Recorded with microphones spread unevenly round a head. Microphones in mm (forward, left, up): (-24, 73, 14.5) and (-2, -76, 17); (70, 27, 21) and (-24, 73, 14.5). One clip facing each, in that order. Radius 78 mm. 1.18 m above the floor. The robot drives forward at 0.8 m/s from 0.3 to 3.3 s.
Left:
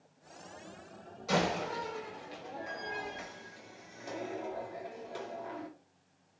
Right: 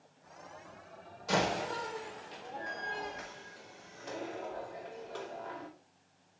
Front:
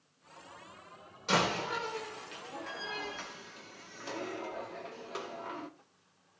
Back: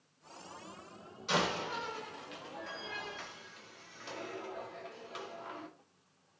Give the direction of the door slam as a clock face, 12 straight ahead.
12 o'clock.